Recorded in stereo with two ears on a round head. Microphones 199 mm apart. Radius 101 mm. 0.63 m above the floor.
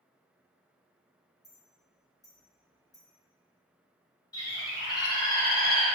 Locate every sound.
1.4 s a clink: 15° left (ahead or behind), 1.2 m
4.3 s a bird: 20° left (ahead or behind), 0.7 m